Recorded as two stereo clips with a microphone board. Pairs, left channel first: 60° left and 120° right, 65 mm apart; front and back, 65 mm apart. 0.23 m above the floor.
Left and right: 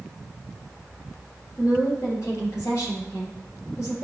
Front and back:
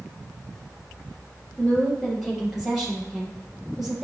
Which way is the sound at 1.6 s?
95° left.